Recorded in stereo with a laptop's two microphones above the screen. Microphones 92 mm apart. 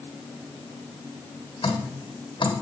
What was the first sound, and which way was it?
Dripping, 65° left (ahead or behind).